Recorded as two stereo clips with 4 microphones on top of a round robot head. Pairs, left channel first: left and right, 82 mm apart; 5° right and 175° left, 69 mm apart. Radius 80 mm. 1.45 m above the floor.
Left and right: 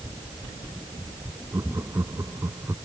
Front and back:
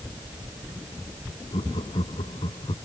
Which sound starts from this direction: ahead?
Laughter, at 1.5 s.